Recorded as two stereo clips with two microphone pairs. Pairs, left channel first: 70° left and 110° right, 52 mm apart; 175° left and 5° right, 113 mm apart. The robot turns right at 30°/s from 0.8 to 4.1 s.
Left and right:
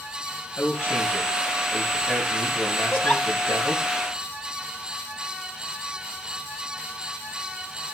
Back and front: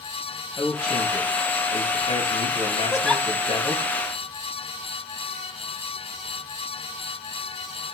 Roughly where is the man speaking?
Behind left.